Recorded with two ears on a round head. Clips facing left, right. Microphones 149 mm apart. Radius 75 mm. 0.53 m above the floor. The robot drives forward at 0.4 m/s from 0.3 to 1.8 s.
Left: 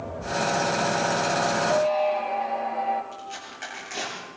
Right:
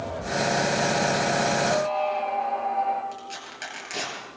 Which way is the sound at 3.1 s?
45° right (ahead or behind).